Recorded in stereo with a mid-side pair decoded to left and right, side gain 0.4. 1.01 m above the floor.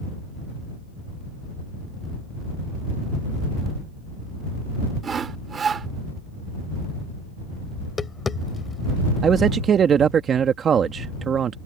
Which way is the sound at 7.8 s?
40° left.